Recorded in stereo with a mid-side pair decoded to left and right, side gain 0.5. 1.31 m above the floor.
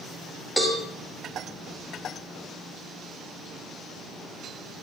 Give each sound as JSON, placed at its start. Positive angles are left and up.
{"t": 0.6, "sound": "a cowbell", "azimuth_deg": 5, "distance_m": 4.0}